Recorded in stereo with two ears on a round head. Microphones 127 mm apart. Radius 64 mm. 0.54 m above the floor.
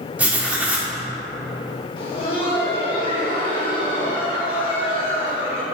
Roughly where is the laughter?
Left.